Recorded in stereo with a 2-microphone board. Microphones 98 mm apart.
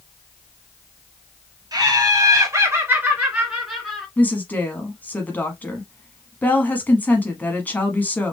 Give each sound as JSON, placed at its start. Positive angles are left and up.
{"t": 1.7, "sound": "laughter", "side_deg": -45, "distance_m": 2.5}
{"t": 4.2, "sound": "a woman speaking", "side_deg": 20, "distance_m": 1.1}